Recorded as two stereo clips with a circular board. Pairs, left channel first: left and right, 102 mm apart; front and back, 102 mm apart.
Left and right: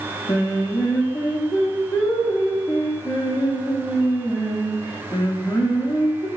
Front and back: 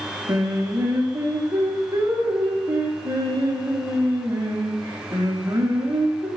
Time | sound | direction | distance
0.3 | singing | 125° left | 0.7 m